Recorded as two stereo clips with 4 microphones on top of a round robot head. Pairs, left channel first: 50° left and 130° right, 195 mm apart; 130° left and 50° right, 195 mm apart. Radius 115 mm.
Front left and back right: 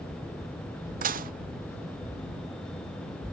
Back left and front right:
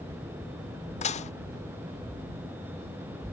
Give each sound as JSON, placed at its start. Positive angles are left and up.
{"t": 1.0, "sound": "dishes clattering", "azimuth_deg": -175}